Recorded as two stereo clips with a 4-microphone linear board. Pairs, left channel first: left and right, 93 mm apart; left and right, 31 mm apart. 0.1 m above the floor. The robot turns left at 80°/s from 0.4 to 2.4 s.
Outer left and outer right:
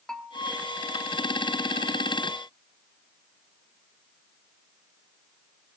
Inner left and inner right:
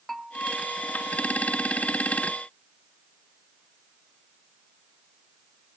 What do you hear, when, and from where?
0.1 s a bell: 5° left (ahead or behind), 1.2 m